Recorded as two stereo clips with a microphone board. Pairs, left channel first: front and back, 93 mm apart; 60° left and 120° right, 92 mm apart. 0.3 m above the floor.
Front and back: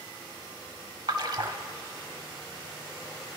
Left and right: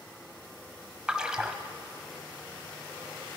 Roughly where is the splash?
Behind.